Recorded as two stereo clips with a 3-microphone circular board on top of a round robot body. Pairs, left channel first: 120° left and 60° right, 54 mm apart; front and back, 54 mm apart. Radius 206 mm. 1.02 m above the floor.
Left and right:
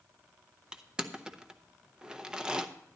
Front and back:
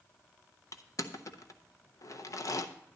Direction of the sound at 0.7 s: 15° left.